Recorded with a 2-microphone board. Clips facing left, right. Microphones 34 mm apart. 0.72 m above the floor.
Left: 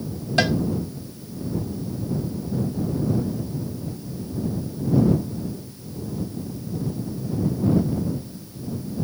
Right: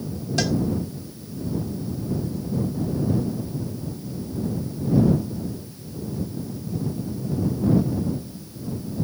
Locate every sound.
0.4 s a cowbell: 35° left (ahead or behind)